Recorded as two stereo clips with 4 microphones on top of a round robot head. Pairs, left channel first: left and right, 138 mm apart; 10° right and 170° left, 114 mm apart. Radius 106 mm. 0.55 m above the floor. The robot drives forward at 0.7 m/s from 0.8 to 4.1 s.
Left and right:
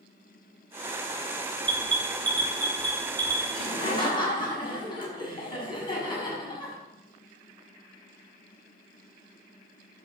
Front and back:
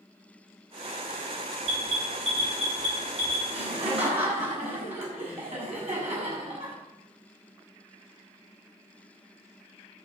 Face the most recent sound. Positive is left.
turn(degrees=145)